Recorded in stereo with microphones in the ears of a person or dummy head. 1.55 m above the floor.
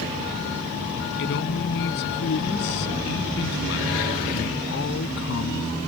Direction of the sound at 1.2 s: 60° left (ahead or behind).